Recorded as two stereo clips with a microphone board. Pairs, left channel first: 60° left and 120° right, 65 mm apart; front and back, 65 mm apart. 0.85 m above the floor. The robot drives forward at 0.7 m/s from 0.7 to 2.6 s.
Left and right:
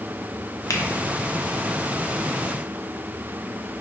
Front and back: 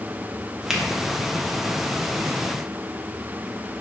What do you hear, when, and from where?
0.7 s a finger snap: 100° left, 0.6 m; by 0.8 s 105° left, 0.6 m